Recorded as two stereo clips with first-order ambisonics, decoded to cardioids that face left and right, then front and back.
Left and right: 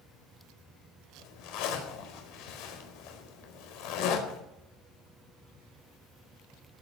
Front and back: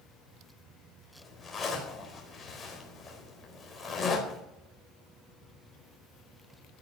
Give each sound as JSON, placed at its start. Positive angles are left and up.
{"t": 1.2, "sound": "a zipper", "azimuth_deg": 80, "distance_m": 4.5}